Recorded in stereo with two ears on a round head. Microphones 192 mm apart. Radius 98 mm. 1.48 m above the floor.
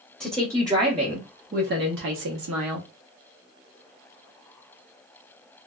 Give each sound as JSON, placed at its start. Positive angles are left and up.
{"t": 0.2, "sound": "a woman speaking", "side_deg": -5, "distance_m": 1.2}